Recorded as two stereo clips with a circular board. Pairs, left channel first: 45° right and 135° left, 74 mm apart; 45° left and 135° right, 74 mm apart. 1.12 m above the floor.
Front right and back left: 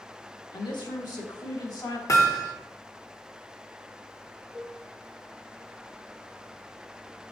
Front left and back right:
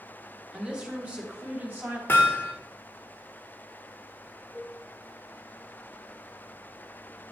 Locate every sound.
0.5 s a woman speaking: 55° right, 1.7 m; by 2.0 s 70° right, 2.5 m
2.1 s hammering: 10° right, 1.3 m
4.5 s a cowbell: 35° left, 3.5 m